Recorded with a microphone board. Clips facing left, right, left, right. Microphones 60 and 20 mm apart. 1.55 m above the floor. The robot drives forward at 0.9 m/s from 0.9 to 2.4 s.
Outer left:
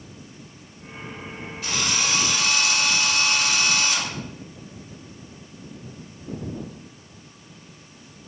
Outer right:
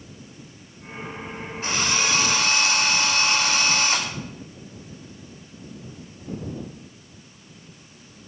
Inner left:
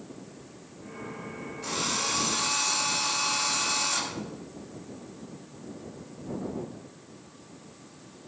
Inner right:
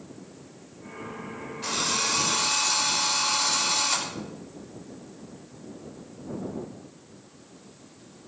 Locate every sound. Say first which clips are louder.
1.6 s a drill: outer right 2 dB, inner right 3 dB; 35° right (ahead or behind), 5.5 m; by 4.1 s 40° right (ahead or behind), 5 m